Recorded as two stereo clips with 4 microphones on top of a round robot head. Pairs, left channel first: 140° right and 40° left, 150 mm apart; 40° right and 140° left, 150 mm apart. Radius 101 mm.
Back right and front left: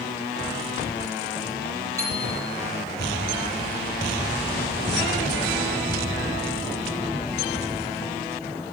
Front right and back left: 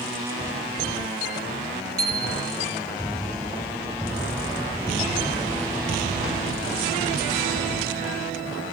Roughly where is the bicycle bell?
Left.